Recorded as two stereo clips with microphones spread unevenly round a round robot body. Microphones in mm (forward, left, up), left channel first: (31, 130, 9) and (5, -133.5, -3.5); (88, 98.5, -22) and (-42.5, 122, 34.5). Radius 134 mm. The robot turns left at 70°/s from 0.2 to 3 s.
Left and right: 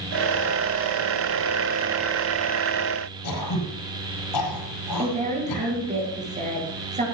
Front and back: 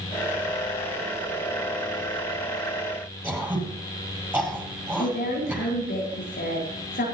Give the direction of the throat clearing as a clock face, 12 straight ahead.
9 o'clock.